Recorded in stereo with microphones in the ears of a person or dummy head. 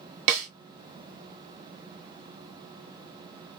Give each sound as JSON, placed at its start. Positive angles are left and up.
{"t": 0.3, "sound": "a snare drum", "side_deg": -35, "distance_m": 0.8}